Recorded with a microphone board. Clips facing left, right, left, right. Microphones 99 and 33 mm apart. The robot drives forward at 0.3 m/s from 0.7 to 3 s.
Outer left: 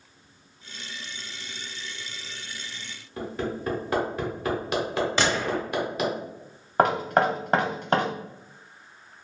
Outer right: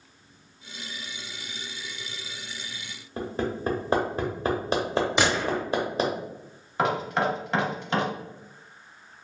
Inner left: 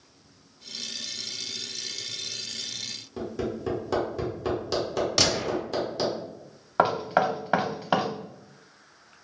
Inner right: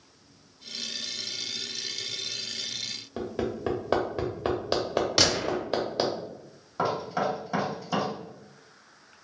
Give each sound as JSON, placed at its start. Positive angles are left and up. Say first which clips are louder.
{"t": 3.2, "sound": "hammering", "louder": "outer right 1 dB, even", "side_deg": -30, "distance_m": 0.8}
{"t": 5.2, "sound": "a gunshot", "louder": "even, even", "side_deg": -10, "distance_m": 0.5}
{"t": 6.8, "sound": "knocking", "louder": "outer left 4 dB, inner left 5 dB", "side_deg": 45, "distance_m": 0.5}